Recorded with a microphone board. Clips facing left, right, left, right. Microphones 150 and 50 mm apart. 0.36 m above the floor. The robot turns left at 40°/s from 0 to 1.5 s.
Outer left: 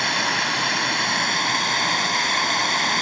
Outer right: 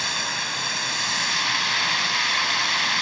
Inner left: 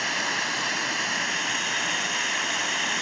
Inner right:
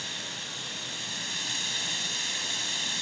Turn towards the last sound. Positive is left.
turn(degrees=50)